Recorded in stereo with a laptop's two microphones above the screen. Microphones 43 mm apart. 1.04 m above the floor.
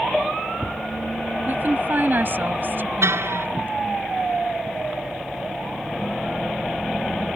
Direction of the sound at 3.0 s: 75° right (ahead or behind).